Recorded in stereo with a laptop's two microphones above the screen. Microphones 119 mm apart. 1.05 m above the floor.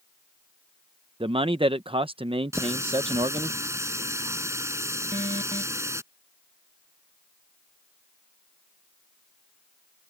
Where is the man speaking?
50° right (ahead or behind).